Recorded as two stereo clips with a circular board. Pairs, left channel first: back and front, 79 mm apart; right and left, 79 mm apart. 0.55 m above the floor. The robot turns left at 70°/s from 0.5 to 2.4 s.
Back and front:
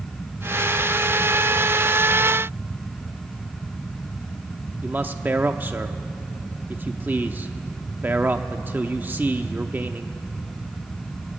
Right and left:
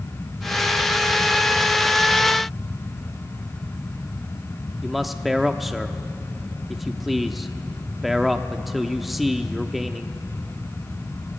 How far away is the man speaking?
About 0.7 m.